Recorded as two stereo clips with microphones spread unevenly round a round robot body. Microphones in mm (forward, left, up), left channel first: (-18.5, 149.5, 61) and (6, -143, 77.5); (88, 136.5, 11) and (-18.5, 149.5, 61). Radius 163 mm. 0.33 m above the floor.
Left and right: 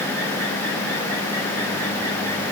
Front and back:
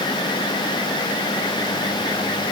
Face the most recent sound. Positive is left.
No sound to turn to.